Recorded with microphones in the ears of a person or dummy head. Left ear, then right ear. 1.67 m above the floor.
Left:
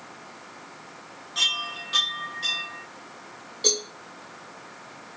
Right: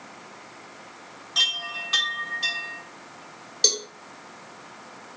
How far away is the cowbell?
About 0.9 m.